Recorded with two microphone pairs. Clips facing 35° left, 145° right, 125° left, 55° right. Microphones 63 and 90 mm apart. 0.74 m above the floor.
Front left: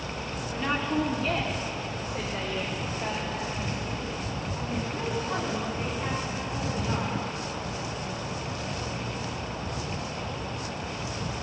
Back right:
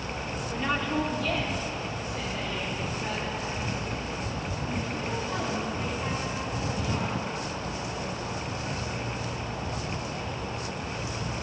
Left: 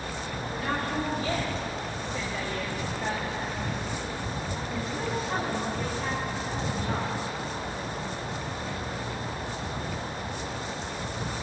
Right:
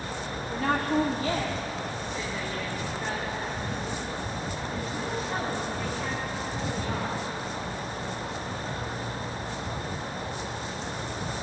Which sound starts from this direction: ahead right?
A woman speaking, at 0.5 s.